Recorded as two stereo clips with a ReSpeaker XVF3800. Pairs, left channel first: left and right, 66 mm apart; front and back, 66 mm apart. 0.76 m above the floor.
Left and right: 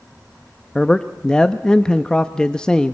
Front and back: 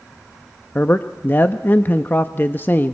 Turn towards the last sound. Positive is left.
turn(degrees=25)